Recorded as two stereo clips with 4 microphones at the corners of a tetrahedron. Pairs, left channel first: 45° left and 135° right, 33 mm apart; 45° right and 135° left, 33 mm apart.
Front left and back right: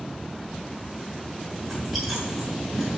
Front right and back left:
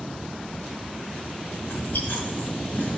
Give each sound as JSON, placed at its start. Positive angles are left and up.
{"t": 1.6, "sound": "chewing", "azimuth_deg": -50, "distance_m": 4.0}